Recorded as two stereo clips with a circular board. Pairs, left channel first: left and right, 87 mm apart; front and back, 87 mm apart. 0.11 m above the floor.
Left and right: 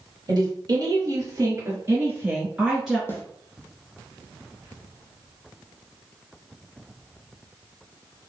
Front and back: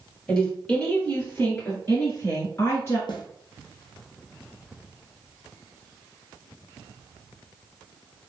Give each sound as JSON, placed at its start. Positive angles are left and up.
{"t": 0.3, "sound": "a woman speaking", "azimuth_deg": -80, "distance_m": 2.5}
{"t": 3.1, "sound": "a snare drum", "azimuth_deg": 25, "distance_m": 1.4}